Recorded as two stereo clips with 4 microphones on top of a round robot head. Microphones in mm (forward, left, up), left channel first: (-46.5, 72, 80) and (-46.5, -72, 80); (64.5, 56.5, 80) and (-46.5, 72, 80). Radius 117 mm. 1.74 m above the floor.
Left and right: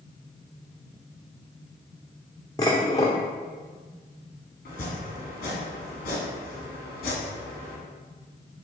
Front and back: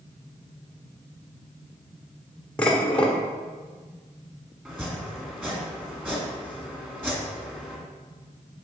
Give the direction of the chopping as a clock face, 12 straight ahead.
9 o'clock.